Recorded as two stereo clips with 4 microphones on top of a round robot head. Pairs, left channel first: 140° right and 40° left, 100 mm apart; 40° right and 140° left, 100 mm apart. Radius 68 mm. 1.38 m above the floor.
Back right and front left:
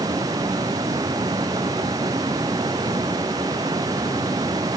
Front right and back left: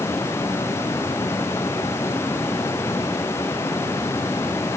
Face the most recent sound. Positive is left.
No sound to turn to.